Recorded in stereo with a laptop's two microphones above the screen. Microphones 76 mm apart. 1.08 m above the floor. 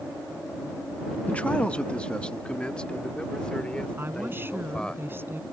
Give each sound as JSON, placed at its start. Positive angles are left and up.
{"t": 1.3, "sound": "a man speaking", "side_deg": 20}
{"t": 4.0, "sound": "a woman speaking", "side_deg": -30}